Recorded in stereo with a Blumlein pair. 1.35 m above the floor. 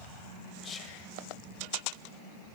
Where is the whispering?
20° left, 1.7 m.